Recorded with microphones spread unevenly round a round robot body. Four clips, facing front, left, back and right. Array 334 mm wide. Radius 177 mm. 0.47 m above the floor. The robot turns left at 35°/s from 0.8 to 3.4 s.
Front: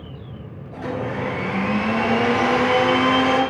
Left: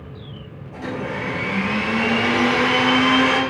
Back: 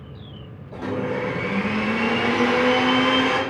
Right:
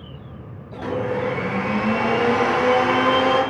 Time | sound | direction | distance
0.7 | a blender | 160° right | 6.5 m